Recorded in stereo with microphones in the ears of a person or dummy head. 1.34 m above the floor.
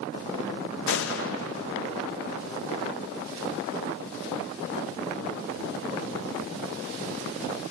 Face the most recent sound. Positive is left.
turn(degrees=70)  # may be behind; listen again after turning